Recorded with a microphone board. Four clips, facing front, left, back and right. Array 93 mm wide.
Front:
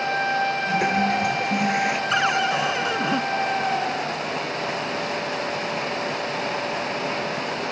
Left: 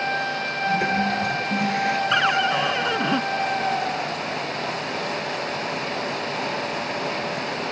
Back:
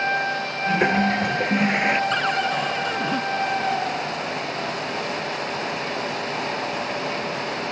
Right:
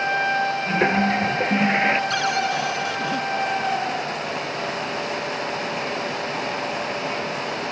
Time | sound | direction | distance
0.7 | a toilet flushing | 125° right | ?
2.1 | a cupboard door | 65° left | ?